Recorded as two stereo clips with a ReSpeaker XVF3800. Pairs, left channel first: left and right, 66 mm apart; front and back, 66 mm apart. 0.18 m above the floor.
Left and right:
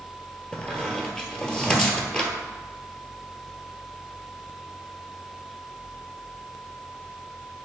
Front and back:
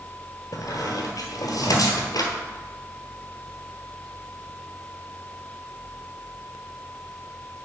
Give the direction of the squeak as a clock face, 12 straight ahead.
12 o'clock.